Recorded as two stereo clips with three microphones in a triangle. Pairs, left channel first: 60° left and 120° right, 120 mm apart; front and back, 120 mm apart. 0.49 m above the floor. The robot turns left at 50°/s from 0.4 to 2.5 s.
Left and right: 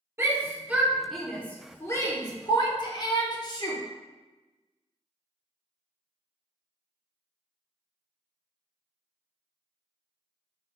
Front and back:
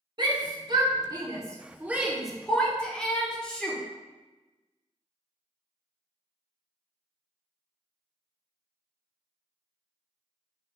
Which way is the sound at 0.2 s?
175° right.